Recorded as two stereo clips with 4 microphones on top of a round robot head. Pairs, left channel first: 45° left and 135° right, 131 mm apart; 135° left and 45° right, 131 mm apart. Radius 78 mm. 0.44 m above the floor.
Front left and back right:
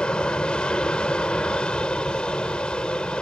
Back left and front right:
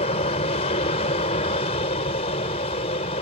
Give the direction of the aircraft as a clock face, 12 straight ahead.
8 o'clock.